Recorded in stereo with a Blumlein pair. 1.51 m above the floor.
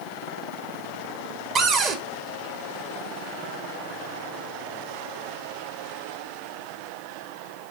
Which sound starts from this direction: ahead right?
A cupboard door, at 1.6 s.